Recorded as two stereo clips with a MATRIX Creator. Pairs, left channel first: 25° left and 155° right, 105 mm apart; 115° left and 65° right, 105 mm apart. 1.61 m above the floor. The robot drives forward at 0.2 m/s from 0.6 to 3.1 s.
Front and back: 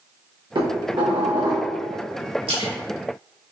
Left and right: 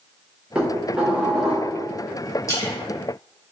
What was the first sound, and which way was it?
Dishes clattering, 145° right.